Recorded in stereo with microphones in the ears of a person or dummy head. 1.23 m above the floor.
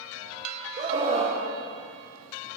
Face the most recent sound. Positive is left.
turn(degrees=-25)  # may be behind; listen again after turning